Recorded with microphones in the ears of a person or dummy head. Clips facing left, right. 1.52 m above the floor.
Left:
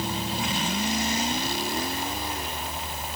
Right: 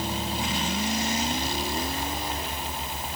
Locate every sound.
Only background noise.